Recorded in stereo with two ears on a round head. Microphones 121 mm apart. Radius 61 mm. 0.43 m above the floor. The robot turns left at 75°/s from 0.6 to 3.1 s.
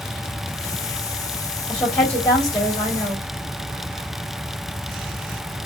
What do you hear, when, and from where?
1.7 s a woman speaking: 175° right, 1.5 m; by 3.2 s 80° left, 1.5 m